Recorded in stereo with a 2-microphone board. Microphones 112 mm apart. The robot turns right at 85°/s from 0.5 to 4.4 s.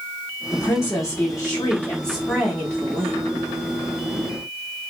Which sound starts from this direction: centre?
A woman speaking, at 0.5 s.